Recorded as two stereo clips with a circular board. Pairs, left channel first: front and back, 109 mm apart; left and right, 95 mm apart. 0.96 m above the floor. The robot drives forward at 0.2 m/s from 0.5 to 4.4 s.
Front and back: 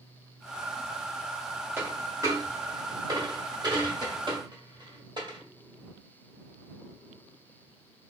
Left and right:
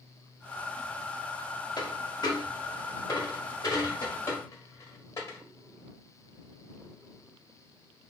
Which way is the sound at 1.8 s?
120° left.